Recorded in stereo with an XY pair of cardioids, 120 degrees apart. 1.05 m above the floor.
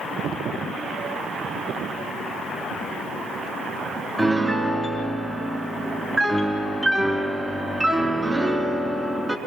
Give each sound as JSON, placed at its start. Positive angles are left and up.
{"t": 4.2, "sound": "a piano", "azimuth_deg": -15, "distance_m": 3.5}